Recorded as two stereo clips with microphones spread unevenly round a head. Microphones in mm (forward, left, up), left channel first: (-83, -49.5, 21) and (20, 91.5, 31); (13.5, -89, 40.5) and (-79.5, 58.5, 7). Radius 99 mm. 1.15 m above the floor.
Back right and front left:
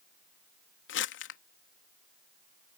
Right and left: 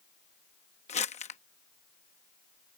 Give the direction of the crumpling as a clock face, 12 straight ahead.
4 o'clock.